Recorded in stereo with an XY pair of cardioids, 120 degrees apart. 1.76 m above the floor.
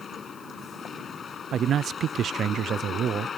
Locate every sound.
0.0 s a vehicle: 40° left
1.5 s a man speaking: 50° right